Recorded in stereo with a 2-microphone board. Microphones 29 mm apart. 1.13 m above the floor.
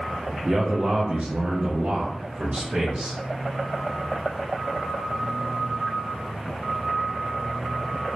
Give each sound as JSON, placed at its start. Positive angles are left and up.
{"t": 0.5, "sound": "a man speaking", "side_deg": -35, "distance_m": 0.6}